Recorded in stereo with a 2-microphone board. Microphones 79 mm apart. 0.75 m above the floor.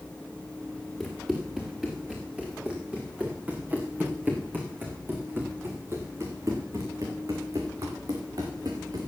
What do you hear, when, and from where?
1.0 s running footsteps: centre (ahead or behind), 5 m; by 9.1 s 60° right (ahead or behind), 4.5 m